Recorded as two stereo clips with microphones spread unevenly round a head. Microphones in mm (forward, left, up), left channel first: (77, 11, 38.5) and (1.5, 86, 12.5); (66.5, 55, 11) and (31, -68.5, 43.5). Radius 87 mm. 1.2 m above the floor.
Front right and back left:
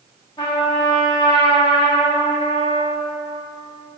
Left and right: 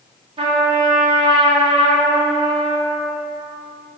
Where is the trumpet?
85° right, 0.5 m.